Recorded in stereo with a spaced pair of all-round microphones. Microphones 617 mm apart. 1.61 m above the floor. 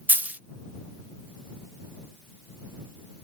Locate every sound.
0.1 s a dropped coin: 5° right (ahead or behind)